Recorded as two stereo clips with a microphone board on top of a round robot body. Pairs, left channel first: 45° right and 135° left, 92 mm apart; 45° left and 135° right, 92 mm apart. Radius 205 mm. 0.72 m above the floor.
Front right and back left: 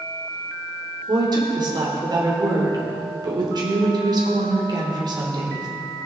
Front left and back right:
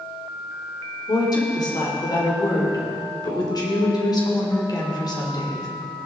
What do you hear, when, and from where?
1.1 s a woman speaking: 90° left, 3 m